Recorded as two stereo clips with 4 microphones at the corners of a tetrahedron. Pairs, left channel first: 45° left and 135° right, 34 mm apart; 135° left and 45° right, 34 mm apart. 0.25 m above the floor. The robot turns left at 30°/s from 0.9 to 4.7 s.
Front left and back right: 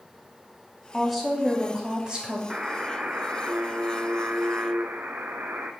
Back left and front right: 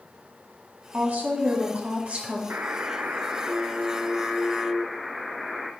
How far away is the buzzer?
About 0.7 m.